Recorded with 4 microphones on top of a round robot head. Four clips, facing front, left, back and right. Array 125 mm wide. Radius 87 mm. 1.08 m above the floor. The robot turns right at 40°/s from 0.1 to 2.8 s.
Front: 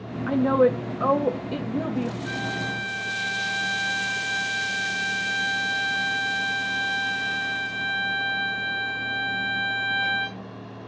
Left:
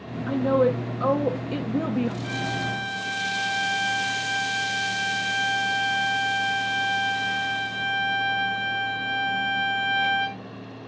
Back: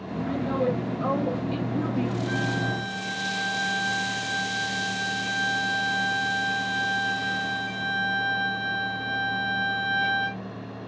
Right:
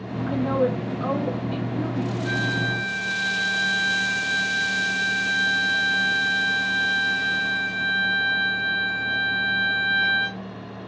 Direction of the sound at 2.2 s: 75° left.